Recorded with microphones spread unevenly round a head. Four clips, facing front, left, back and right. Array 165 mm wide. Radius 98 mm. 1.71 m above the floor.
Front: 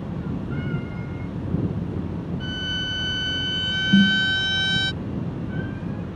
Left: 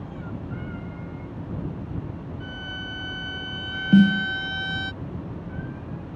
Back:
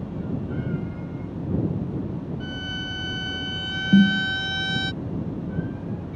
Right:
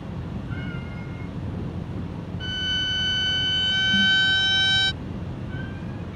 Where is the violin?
85° right.